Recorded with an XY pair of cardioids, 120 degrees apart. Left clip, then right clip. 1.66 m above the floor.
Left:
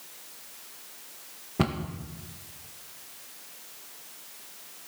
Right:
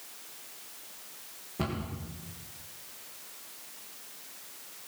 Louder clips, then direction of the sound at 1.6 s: Left 6 dB; 45° left.